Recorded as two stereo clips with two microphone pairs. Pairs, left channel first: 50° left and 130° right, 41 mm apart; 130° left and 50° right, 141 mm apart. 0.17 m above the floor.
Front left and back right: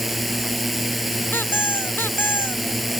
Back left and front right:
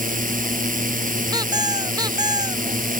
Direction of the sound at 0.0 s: 45° right.